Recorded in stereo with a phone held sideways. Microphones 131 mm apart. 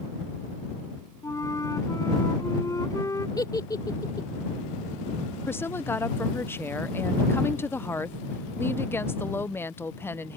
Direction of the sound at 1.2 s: 25° left (ahead or behind).